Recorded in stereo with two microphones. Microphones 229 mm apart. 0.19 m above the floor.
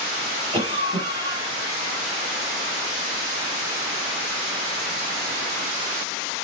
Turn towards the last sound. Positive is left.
turn(degrees=-20)  # may be behind; listen again after turning